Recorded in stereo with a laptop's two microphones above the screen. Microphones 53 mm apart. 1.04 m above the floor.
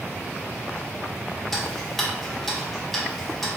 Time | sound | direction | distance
1.5 | ticking | 5° left (ahead or behind) | 0.8 m